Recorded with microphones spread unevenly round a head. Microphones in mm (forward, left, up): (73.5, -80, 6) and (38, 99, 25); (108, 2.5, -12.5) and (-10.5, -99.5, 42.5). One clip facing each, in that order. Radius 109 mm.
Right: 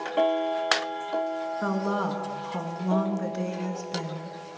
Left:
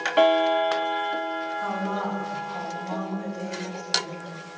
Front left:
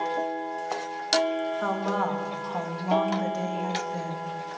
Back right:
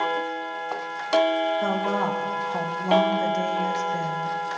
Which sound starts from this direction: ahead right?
A woman speaking, at 1.6 s.